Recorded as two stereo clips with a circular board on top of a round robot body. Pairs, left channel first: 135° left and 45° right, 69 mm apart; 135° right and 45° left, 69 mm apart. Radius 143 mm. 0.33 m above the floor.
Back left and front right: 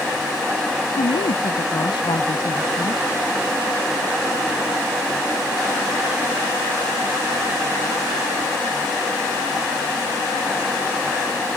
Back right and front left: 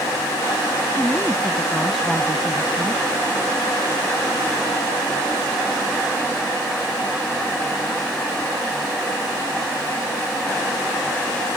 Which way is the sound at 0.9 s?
145° left.